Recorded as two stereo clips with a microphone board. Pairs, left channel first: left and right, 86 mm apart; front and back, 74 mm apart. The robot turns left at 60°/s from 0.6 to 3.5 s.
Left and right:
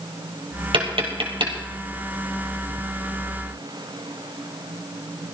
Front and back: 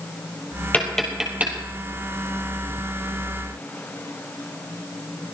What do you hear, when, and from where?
0.7 s tapping: 70° right, 3 m; by 1.5 s 115° right, 3 m